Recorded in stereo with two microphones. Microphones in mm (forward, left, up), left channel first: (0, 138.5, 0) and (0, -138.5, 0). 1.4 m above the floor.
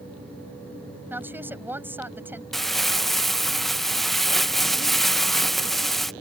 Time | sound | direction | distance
1.1 | a woman speaking | 5° right (ahead or behind) | ?
2.5 | crumpling | centre (ahead or behind) | ?